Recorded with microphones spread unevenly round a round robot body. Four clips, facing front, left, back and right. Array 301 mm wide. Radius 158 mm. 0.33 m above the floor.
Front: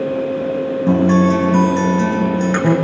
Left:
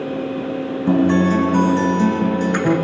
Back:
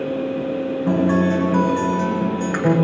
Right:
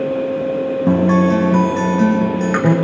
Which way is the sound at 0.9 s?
75° right.